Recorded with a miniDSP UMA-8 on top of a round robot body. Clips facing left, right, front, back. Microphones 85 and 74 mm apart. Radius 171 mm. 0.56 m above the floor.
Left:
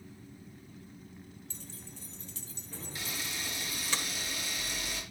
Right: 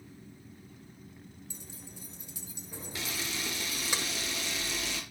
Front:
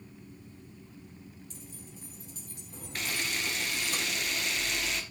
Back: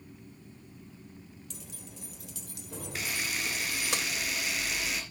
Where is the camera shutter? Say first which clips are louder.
Right 3 dB, front 1 dB; 95° right, 2.5 m.